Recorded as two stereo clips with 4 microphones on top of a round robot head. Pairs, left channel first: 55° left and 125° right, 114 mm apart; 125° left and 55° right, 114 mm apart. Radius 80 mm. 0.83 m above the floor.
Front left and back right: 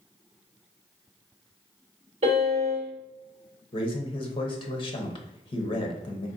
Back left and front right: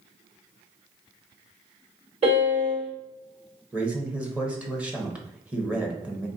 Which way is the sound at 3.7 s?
20° left.